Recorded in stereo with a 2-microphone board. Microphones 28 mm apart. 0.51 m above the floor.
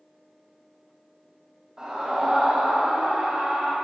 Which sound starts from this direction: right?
A scream, at 1.8 s.